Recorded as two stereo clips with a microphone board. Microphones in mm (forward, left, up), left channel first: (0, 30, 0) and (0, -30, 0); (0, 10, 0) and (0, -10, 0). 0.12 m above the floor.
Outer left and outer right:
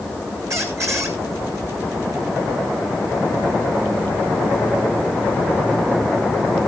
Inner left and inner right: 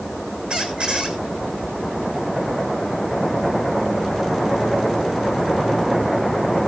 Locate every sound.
0.5 s a squeak: 55° right (ahead or behind), 1.9 m